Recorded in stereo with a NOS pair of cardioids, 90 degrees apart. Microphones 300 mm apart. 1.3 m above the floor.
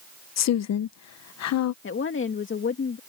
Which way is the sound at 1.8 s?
40° left.